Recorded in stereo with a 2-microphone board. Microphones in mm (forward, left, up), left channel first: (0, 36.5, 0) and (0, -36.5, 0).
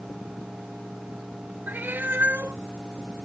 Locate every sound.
1.7 s a cat meowing: 30° right (ahead or behind)